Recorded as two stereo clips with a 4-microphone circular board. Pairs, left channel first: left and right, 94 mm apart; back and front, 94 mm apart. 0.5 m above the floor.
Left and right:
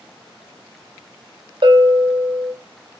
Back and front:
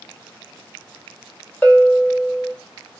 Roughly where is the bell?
Right.